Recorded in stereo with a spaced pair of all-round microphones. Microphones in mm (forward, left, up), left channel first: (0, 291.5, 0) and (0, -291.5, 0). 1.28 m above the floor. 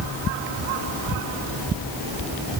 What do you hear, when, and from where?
Only background noise.